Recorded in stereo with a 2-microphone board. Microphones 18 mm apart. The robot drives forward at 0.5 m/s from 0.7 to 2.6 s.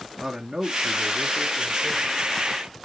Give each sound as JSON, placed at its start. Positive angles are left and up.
{"t": 0.2, "sound": "a man speaking", "side_deg": -25, "distance_m": 1.3}